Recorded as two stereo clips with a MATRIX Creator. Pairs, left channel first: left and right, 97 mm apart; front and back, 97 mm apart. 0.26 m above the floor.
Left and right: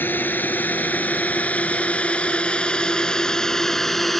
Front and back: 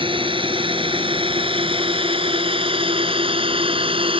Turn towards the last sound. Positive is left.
turn(degrees=180)